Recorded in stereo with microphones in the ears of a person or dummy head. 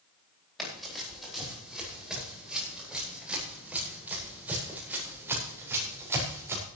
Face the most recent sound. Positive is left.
turn(degrees=-15)  # may be behind; listen again after turning